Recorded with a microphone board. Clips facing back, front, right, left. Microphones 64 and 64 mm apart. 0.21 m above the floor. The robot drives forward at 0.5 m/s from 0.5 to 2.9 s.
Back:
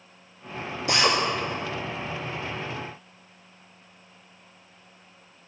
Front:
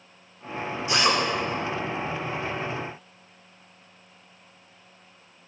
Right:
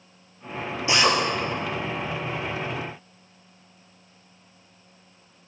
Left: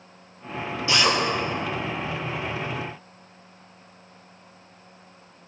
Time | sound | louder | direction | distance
0.9 | a drill | even, right 1 dB | 160° right | 6 m